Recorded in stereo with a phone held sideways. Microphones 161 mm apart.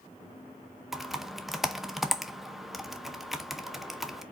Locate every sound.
0.9 s typing on a keyboard: centre (ahead or behind), 0.7 m